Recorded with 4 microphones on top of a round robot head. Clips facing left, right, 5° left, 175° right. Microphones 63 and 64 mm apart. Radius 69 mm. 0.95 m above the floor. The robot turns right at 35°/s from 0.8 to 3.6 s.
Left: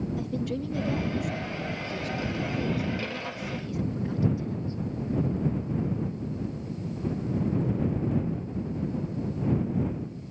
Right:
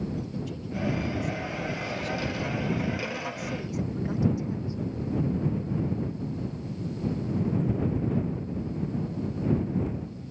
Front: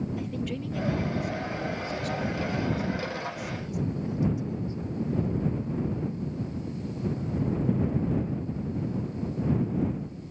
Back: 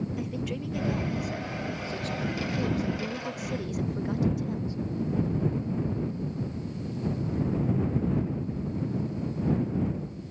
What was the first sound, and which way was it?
A woman speaking, 100° left.